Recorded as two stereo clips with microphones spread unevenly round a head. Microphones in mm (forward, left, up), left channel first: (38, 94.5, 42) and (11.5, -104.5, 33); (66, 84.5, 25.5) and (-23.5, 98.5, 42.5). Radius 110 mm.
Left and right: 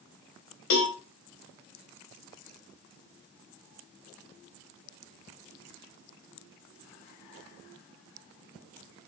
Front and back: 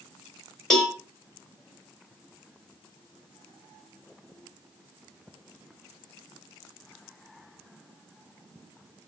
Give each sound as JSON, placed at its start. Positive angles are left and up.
{"t": 0.7, "sound": "a cowbell", "azimuth_deg": 80, "distance_m": 0.9}